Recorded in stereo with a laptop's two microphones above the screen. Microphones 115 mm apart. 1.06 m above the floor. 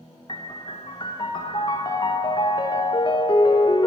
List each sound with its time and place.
0.3 s a piano: 40° left (ahead or behind), 0.6 m